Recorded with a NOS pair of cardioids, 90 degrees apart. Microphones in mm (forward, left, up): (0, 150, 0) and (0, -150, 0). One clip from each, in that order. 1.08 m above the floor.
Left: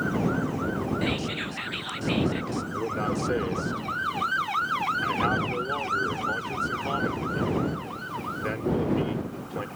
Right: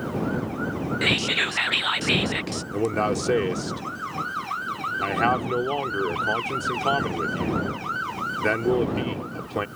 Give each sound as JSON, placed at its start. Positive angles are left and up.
{"t": 1.0, "sound": "whispering", "azimuth_deg": -50}
{"t": 2.7, "sound": "a man speaking", "azimuth_deg": -55}